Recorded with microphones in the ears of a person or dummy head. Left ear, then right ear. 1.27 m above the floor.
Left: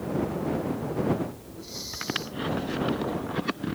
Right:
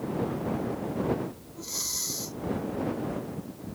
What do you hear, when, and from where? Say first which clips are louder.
1.6 s breathing: right 4 dB; 45° right (ahead or behind)